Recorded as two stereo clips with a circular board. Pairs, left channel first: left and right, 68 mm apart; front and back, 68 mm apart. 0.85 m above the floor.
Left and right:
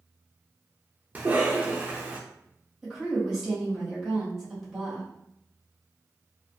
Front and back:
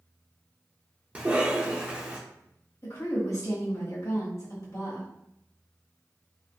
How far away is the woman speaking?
About 1.5 m.